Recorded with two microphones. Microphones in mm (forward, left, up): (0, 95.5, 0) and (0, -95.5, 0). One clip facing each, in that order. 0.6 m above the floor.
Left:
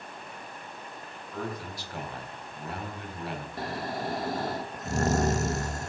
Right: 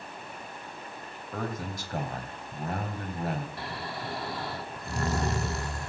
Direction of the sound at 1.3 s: 45° right (ahead or behind).